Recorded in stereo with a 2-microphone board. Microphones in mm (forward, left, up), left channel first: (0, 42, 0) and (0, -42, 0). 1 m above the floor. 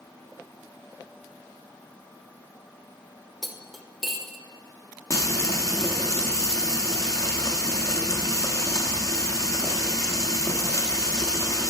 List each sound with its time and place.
3.4 s cutlery clinking: centre (ahead or behind), 0.5 m
5.1 s frying: 40° left (ahead or behind), 0.8 m